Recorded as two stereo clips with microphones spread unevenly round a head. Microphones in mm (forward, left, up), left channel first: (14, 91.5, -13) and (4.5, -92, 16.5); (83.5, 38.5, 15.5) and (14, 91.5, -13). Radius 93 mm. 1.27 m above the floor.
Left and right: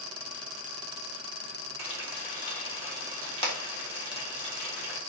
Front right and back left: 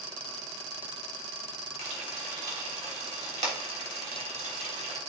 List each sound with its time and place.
1.8 s frying: 155° left, 3.5 m